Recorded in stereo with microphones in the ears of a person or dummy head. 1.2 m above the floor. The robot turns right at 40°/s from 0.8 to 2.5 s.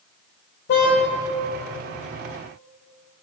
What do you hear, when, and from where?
0.7 s a car horn: 60° left (ahead or behind), 2 m; by 1.0 s 55° left (ahead or behind), 2 m